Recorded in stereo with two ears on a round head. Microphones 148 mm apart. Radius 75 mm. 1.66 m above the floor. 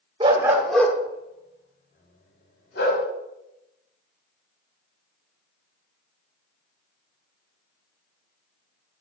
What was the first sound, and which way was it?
A dog barking, 30° right (ahead or behind).